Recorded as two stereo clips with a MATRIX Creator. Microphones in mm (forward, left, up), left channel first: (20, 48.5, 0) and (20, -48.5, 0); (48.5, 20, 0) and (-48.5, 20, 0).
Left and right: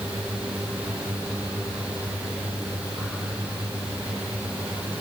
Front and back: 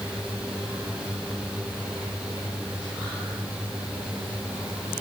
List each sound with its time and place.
Only background noise.